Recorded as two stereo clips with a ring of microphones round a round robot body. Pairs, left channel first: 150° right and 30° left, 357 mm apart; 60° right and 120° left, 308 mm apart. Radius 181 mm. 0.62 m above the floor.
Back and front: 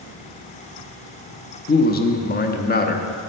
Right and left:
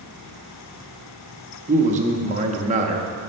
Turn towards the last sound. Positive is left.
turn(degrees=170)